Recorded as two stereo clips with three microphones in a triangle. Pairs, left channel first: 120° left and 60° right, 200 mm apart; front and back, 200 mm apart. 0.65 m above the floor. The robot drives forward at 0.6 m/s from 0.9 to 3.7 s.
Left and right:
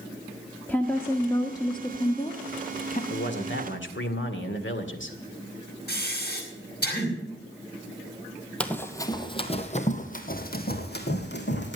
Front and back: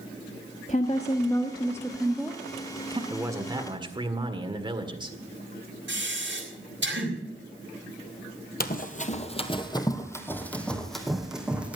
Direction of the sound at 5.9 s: 155° left.